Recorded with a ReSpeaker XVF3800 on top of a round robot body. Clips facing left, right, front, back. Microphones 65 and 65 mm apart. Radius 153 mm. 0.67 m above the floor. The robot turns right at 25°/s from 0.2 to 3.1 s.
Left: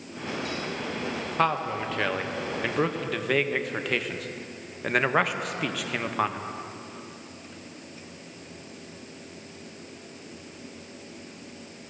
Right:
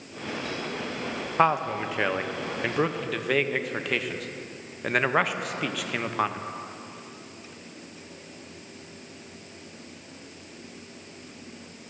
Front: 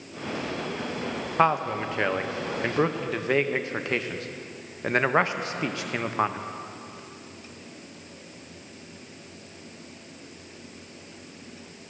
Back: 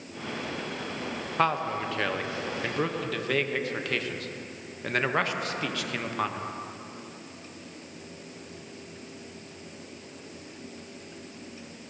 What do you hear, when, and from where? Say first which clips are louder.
1.4 s a man speaking: right 3 dB, front 4 dB; 45° right, 0.6 m; by 6.4 s straight ahead, 0.6 m